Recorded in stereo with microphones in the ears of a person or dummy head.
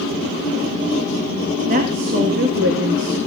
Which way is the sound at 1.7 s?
45° right (ahead or behind).